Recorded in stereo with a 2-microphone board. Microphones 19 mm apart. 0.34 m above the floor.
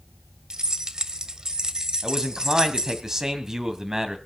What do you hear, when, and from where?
0.5 s keys jangling: 40° right (ahead or behind), 1.0 m
2.0 s a man speaking: 35° right (ahead or behind), 1.9 m